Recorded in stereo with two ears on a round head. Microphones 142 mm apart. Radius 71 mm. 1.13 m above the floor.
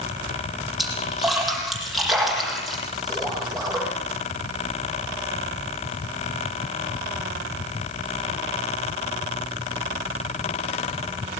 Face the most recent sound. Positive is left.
turn(degrees=0)  # may be behind; listen again after turning